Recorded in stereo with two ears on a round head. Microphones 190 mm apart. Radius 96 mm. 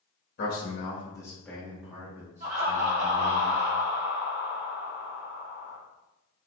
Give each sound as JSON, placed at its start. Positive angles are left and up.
{"t": 0.4, "sound": "a man speaking", "side_deg": 45, "distance_m": 1.0}
{"t": 2.4, "sound": "laughter", "side_deg": -40, "distance_m": 1.4}